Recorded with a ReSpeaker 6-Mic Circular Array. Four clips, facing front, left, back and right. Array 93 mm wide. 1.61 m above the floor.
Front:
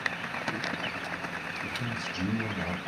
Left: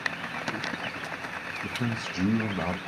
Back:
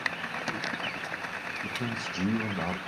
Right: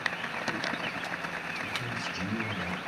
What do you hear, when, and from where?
1.6 s a man speaking: 120° left, 1.1 m